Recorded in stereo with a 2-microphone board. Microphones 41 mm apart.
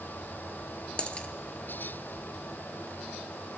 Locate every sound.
1.0 s a dropped coin: 30° left (ahead or behind), 0.7 m